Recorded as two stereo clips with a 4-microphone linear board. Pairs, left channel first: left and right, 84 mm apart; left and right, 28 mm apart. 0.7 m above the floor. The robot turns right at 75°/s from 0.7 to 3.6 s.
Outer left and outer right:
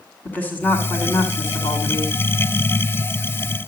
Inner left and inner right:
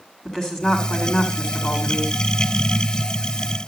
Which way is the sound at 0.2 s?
30° left.